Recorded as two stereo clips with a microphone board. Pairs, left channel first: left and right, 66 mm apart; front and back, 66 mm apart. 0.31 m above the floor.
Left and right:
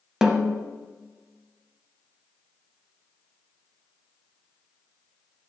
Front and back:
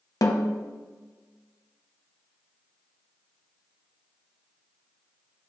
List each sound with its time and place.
0.2 s a snare drum: 5° right, 0.9 m